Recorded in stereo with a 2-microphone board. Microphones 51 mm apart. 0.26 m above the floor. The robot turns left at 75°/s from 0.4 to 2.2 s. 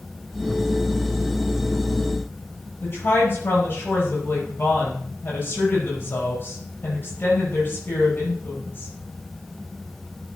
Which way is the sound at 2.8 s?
40° left (ahead or behind).